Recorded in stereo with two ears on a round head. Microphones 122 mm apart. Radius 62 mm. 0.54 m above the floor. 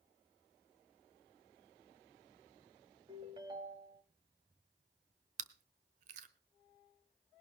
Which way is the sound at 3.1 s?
30° right (ahead or behind).